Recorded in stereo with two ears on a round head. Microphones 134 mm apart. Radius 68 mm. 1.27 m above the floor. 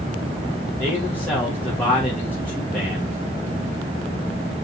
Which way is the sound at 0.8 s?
10° left (ahead or behind).